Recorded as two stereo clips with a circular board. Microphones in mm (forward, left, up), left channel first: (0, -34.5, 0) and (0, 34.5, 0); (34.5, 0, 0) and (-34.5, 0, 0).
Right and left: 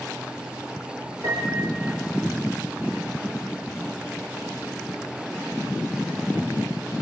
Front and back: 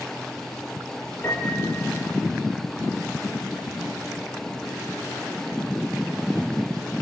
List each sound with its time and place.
1.2 s a piano: 60° left, 5 m